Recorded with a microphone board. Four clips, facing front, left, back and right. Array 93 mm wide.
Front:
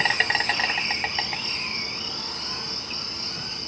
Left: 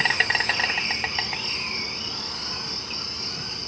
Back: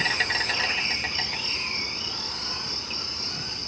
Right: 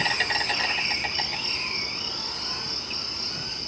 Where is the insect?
50° left, 1.0 m.